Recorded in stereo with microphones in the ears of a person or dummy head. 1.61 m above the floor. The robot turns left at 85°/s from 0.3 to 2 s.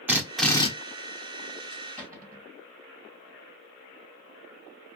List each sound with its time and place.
0.1 s a drill: 170° right, 0.9 m; by 0.7 s 155° left, 0.9 m
2.0 s a cupboard door: 10° right (ahead or behind), 1.8 m; by 2.5 s 15° right (ahead or behind), 1.8 m